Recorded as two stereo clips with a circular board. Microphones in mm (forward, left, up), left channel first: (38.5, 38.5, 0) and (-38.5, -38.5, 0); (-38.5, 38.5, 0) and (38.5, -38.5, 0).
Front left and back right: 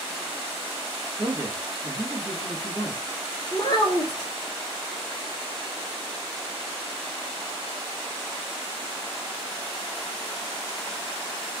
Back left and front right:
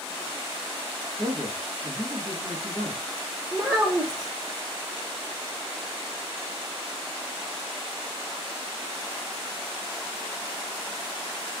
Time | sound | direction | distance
1.2 | a man speaking | 75° right | 1.4 m
3.5 | a child speaking | 30° left | 1.0 m